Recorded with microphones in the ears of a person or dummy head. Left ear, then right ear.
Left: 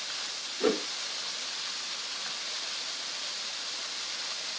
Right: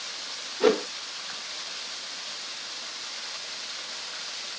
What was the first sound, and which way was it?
A whoosh, 30° right (ahead or behind).